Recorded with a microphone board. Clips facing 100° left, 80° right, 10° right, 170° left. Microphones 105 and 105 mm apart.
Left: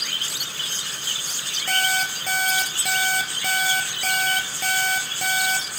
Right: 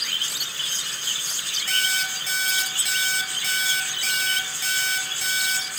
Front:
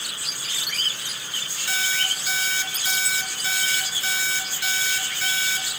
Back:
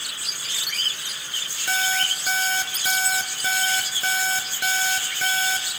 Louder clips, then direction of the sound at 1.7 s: Left 5 dB, back 4 dB; 130° left.